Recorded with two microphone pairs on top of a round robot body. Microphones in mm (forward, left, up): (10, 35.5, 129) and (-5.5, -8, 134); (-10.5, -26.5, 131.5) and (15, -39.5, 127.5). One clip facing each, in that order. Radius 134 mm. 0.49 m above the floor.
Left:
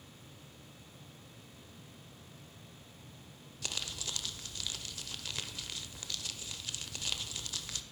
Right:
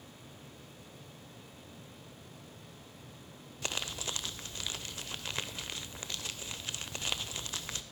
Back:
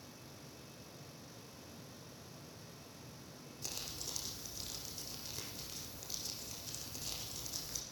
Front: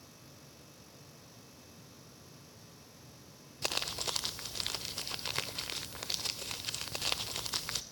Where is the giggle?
I don't hear a giggle.